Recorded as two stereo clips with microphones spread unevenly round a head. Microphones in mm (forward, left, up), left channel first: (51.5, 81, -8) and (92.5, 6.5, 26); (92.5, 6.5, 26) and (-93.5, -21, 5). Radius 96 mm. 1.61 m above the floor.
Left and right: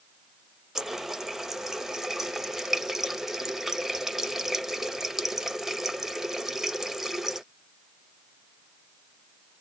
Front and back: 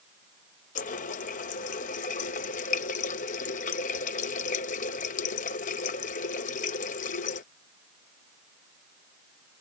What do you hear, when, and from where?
0.8 s a running tap: 5° right